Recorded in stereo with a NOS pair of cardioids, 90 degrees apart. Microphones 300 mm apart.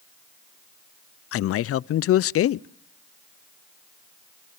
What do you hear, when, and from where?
1.3 s a man speaking: 55° left, 0.5 m